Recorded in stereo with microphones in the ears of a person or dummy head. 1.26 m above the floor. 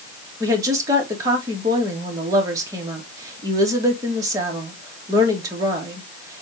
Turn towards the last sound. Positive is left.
turn(degrees=-15)  # may be behind; listen again after turning